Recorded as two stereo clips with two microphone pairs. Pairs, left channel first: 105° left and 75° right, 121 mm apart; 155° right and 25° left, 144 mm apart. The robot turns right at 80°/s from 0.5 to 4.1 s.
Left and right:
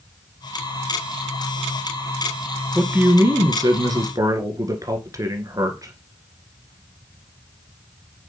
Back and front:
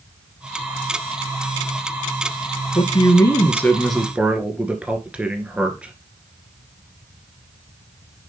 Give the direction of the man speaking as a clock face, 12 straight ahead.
5 o'clock.